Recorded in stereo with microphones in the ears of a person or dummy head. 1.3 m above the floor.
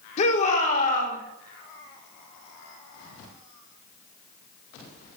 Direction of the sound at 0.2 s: 40° left (ahead or behind).